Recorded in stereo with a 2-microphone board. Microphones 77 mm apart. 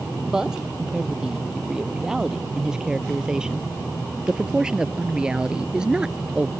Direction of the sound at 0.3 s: 10° right (ahead or behind).